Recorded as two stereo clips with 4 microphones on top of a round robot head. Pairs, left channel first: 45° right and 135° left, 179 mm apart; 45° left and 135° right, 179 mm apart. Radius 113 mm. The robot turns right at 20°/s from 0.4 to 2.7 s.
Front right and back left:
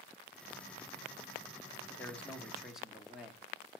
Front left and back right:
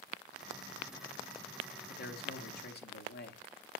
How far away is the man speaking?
About 1.2 m.